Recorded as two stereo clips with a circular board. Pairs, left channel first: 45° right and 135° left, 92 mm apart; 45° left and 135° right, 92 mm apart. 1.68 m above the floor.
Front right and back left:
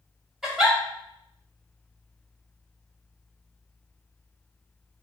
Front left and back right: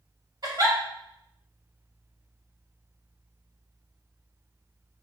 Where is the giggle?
135° right, 1.9 m.